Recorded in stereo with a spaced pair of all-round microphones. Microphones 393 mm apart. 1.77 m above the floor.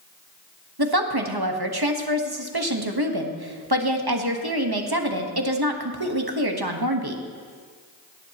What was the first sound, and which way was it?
A woman speaking, 65° right (ahead or behind).